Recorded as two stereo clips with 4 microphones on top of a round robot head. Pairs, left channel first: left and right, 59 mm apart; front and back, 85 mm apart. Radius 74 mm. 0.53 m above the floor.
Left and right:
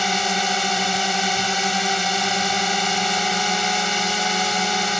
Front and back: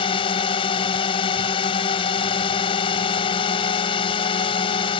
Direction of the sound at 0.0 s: Straight ahead.